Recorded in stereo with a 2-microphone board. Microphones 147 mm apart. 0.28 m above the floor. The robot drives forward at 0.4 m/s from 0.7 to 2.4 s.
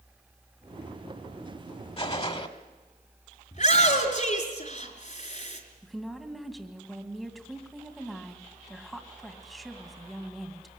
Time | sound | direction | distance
2.0 | a gunshot | 40° left (ahead or behind) | 1.4 m
3.5 | a shout | 55° left (ahead or behind) | 4.5 m
5.8 | a woman speaking | centre (ahead or behind) | 2.5 m